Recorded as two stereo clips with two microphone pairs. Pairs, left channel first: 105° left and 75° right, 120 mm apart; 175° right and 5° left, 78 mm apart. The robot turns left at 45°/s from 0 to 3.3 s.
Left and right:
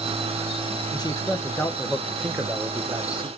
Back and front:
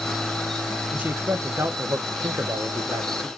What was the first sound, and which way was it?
A man speaking, 75° left.